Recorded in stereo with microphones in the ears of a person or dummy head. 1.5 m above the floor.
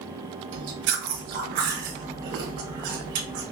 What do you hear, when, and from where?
0.5 s chewing: 60° right (ahead or behind), 1.4 m